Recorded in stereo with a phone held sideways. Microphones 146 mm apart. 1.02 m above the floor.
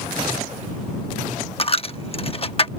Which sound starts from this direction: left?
A dropped coin, at 1.6 s.